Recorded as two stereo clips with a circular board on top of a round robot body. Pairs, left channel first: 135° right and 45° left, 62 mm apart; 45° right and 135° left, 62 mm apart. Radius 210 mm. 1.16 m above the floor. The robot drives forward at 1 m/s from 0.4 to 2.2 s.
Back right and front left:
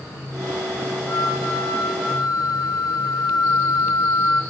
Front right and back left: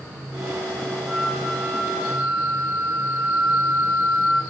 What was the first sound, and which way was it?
A flute, 160° right.